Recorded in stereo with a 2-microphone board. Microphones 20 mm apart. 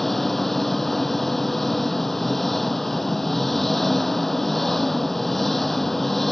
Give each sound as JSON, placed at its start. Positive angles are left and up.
{"t": 0.0, "sound": "an engine running", "side_deg": 10}